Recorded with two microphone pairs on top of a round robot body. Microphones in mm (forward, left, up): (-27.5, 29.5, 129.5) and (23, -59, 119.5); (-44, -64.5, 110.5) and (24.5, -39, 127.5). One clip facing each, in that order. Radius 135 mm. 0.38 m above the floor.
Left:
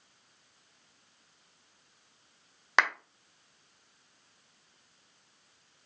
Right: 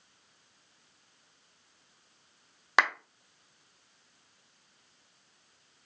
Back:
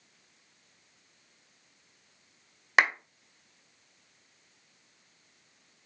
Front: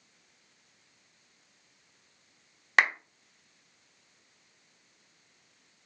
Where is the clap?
125° right, 0.9 m.